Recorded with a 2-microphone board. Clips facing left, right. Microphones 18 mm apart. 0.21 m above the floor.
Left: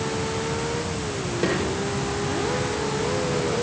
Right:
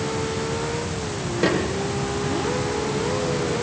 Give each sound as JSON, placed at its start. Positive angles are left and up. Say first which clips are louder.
{"t": 1.4, "sound": "a snare drum", "louder": "right 3 dB", "side_deg": -15, "distance_m": 7.5}